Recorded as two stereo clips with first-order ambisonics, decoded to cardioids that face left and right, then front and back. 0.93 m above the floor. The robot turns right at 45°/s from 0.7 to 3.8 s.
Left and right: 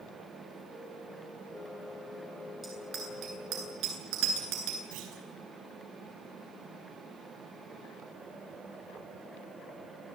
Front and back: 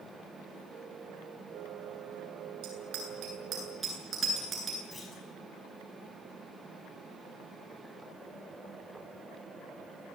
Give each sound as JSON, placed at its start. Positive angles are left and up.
{"t": 2.6, "sound": "a bicycle bell", "azimuth_deg": -165, "distance_m": 9.5}
{"t": 4.9, "sound": "a clunk", "azimuth_deg": -80, "distance_m": 6.0}